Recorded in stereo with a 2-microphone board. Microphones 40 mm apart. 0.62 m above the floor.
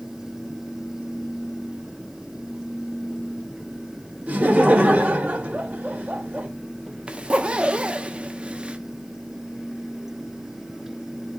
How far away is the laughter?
About 1.8 m.